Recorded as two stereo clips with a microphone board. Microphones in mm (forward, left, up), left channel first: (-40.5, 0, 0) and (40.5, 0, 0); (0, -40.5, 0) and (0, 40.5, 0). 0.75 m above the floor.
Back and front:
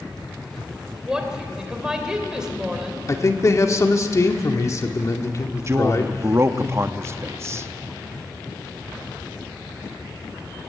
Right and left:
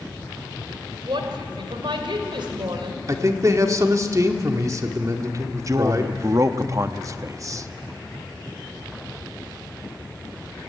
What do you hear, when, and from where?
1.0 s a woman speaking: 80° left, 3 m
3.1 s a man speaking: 135° left, 1.7 m
5.7 s a man speaking: 50° left, 0.8 m